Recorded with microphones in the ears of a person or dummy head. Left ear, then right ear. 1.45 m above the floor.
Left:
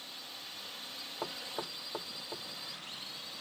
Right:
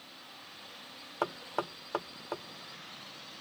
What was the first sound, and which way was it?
A drone, 30° left (ahead or behind).